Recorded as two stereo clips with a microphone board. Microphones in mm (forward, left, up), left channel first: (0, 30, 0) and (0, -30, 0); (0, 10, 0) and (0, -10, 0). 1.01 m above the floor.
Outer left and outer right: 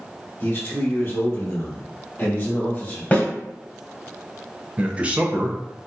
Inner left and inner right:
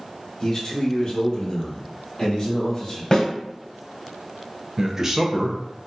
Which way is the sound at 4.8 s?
20° right (ahead or behind).